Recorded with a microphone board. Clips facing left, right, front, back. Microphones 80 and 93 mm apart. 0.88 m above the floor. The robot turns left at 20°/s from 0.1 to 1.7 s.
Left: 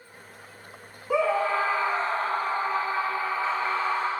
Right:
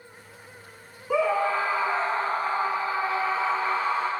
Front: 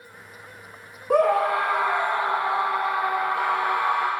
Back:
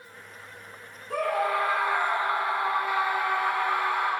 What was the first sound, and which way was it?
A scream, straight ahead.